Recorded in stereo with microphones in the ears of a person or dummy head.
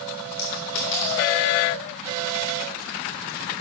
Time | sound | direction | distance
0.4 | a clink | 65° left (ahead or behind) | 2.5 m